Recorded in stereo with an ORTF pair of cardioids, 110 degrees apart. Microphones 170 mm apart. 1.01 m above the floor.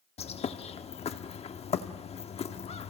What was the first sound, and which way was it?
A bird, 35° left.